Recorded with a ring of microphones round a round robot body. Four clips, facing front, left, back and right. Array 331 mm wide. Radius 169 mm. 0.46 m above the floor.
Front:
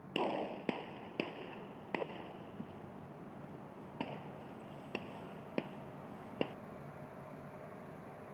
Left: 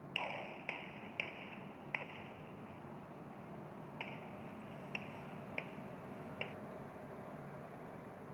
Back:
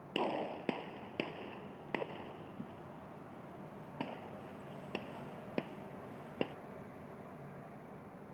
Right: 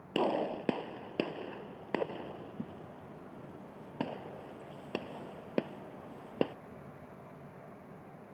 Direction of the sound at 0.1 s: 90° right.